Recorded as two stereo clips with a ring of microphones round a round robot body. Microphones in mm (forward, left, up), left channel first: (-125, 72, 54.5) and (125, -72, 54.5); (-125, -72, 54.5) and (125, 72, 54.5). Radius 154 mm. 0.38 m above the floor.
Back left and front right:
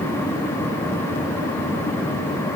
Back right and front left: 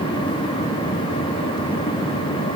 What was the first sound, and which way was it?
Only background noise.